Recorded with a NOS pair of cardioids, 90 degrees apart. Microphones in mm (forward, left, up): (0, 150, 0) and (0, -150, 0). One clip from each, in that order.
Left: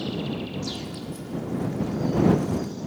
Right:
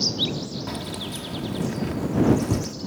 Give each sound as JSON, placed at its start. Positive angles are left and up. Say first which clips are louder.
{"t": 0.7, "sound": "keys jangling", "louder": "right 3 dB", "azimuth_deg": -60}